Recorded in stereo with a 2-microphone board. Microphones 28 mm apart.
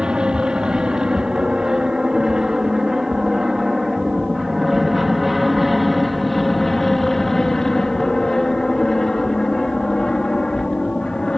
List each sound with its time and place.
0.0 s an aircraft: 30° right (ahead or behind); by 11.4 s 30° left (ahead or behind)